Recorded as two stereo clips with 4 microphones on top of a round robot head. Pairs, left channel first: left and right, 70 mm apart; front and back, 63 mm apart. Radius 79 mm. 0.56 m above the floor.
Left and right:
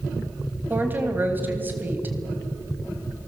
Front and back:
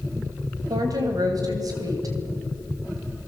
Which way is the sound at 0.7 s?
150° right.